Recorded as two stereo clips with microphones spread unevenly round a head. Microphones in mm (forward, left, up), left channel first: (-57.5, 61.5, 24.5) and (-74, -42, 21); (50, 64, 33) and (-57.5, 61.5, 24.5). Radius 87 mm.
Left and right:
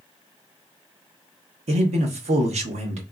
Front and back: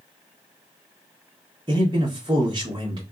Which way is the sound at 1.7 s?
110° right.